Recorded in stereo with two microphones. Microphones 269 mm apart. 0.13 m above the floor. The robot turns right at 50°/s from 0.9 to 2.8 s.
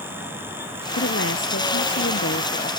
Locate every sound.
0.9 s a woman speaking: 55° left; by 2.7 s 140° left